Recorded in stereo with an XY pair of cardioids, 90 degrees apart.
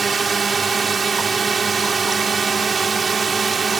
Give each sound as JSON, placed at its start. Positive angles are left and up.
{"t": 0.0, "sound": "a drone", "azimuth_deg": -35}